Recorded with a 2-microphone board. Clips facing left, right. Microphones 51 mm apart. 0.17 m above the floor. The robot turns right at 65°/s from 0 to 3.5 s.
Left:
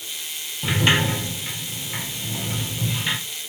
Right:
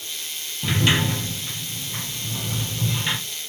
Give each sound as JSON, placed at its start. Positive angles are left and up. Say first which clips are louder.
{"t": 0.6, "sound": "a sliding door", "louder": "left 1 dB", "azimuth_deg": 15, "distance_m": 1.2}